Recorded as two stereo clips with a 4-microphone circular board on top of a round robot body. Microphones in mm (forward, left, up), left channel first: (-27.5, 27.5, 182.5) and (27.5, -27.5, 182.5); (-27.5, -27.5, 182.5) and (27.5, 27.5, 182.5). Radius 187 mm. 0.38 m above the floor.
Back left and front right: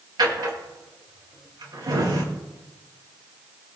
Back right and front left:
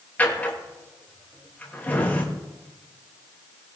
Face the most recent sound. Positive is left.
turn(degrees=-65)